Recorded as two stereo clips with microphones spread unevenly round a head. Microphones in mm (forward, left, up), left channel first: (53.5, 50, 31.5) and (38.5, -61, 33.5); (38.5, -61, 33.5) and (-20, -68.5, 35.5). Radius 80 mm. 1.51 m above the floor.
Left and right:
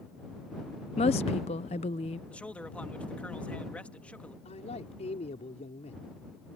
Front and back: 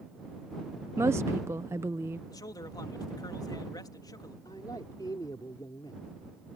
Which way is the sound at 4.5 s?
55° left.